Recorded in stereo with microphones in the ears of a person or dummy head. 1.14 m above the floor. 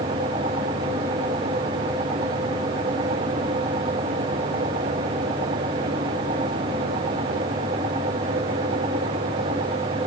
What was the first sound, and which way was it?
Only background noise.